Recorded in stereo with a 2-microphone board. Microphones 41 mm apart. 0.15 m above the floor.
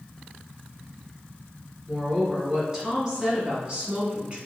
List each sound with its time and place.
1.9 s a woman speaking: 10° right (ahead or behind), 1.4 m; by 4.4 s 30° right (ahead or behind), 1.3 m